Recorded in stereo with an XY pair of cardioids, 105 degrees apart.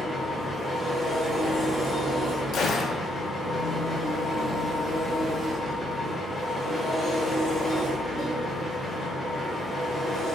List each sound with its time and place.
0.0 s an engine running: 10° left, 1.7 m
2.5 s a gunshot: 55° left, 0.7 m